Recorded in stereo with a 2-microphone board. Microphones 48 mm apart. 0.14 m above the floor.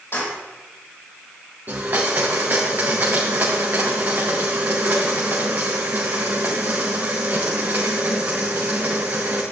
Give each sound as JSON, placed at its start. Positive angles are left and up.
{"t": 0.1, "sound": "keys jangling", "side_deg": 60, "distance_m": 3.5}
{"t": 1.7, "sound": "a blender", "side_deg": -45, "distance_m": 3.0}